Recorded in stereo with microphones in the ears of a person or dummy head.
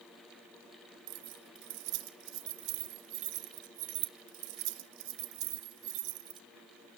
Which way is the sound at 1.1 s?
70° right (ahead or behind).